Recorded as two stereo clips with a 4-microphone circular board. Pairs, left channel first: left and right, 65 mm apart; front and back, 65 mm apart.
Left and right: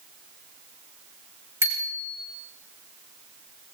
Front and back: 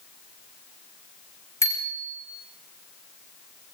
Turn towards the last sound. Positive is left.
turn(degrees=-45)